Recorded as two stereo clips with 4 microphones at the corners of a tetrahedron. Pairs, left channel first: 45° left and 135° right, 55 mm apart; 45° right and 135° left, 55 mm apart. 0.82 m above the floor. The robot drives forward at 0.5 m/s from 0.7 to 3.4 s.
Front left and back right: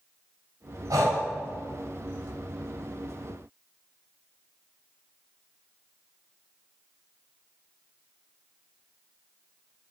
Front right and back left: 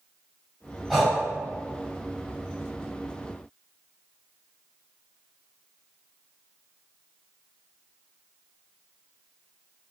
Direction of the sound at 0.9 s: 135° right.